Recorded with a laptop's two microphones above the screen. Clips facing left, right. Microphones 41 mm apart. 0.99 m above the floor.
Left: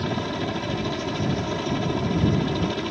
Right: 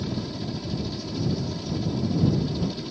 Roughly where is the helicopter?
Left.